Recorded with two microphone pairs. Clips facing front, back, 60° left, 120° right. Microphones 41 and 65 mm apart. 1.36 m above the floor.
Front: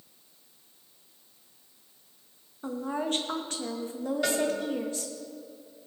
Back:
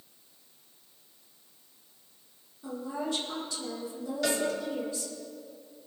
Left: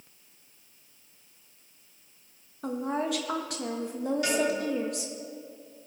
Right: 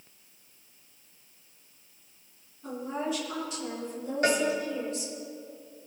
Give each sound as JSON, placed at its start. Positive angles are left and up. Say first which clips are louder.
{"t": 2.6, "sound": "a woman speaking", "louder": "front 3 dB, left 3 dB", "azimuth_deg": 40, "distance_m": 1.6}
{"t": 4.2, "sound": "a cowbell", "louder": "front 1 dB, right 4 dB", "azimuth_deg": -70, "distance_m": 2.5}